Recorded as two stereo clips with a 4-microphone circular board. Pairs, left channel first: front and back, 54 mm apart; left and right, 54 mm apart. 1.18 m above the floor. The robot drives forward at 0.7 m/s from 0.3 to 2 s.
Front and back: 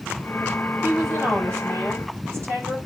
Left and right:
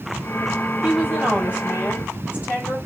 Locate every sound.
0.8 s a woman speaking: 145° right, 9.5 m